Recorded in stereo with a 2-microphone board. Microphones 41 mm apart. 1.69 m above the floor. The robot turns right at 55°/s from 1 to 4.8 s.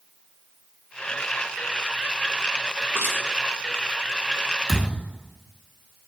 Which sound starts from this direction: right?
Crushing, at 2.9 s.